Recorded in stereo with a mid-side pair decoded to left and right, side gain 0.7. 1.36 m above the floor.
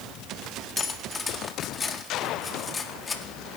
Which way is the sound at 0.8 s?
20° left.